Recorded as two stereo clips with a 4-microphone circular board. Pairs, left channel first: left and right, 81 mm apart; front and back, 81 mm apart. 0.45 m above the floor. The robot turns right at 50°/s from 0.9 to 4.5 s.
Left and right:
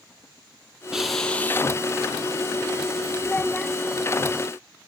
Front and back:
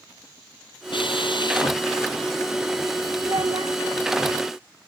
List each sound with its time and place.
0.9 s a drill: 10° right; by 1.8 s 35° left
3.2 s a child speaking: 155° left; by 3.8 s straight behind